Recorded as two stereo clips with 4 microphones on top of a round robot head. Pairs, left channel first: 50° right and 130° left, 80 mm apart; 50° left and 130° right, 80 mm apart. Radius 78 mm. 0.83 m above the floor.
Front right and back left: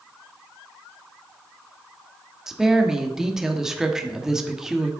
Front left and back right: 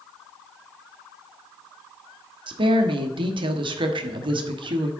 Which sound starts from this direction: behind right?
A woman speaking, at 2.5 s.